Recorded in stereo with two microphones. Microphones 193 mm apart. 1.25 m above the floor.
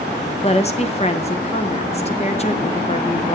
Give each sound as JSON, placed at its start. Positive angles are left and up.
{"t": 0.4, "sound": "a woman speaking", "side_deg": 35, "distance_m": 0.8}